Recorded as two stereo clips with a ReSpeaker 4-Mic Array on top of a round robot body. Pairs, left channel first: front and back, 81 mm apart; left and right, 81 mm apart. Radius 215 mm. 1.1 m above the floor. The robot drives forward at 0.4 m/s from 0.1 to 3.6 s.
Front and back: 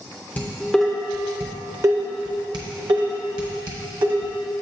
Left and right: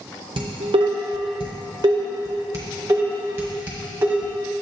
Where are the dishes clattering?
70° right, 0.6 m; by 4.5 s 155° right, 1.2 m.